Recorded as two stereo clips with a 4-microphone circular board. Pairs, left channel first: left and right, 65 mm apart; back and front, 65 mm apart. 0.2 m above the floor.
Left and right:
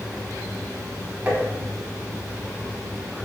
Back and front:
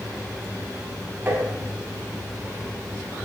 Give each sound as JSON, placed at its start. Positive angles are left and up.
{"t": 1.3, "sound": "tapping", "azimuth_deg": -45, "distance_m": 1.4}